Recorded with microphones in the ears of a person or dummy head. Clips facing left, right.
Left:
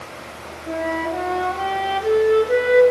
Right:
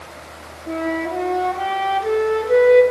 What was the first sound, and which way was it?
A flute, centre (ahead or behind).